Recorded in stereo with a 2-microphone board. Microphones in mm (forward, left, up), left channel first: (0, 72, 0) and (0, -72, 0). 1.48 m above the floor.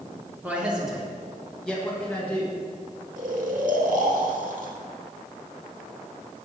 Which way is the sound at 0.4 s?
10° right (ahead or behind).